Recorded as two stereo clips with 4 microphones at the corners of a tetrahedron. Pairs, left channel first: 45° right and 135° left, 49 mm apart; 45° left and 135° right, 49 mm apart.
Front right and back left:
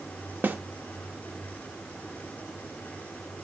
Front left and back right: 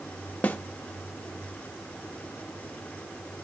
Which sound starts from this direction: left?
A snare drum, at 0.4 s.